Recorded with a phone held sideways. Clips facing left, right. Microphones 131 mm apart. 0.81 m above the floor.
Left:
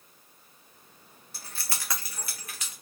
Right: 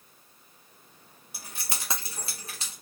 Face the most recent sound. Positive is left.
turn(degrees=-35)  # may be behind; listen again after turning